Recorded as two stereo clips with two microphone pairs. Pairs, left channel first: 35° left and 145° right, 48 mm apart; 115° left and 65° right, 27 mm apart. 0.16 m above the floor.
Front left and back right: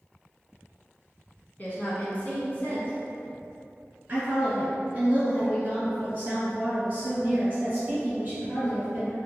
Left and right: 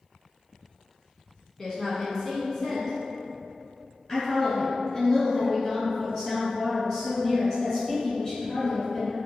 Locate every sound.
1.6 s a woman speaking: 55° left, 1.2 m
4.1 s a woman speaking: straight behind, 1.9 m